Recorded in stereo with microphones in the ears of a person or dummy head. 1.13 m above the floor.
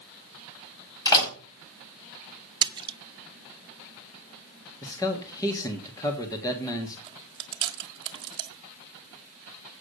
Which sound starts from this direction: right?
Chewing, at 7.1 s.